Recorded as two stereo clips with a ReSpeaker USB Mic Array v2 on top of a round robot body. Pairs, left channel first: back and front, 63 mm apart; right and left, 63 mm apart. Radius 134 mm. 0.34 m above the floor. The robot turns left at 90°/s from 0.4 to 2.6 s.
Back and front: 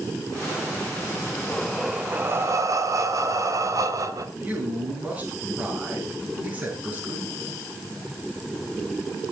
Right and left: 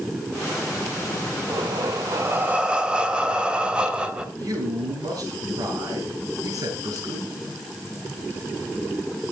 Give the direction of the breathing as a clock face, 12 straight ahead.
8 o'clock.